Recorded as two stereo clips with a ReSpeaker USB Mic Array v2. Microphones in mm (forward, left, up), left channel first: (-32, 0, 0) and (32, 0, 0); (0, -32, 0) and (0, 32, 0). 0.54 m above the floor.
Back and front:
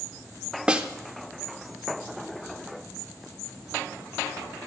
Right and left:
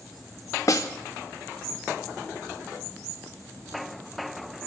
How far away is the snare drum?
About 0.6 m.